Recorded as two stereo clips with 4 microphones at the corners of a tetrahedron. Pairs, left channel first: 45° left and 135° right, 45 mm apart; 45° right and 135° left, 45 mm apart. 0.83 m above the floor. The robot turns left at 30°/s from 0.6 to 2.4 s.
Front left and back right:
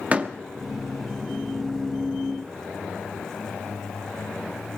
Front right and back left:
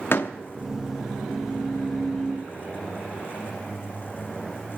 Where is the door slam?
75° right, 1.1 m.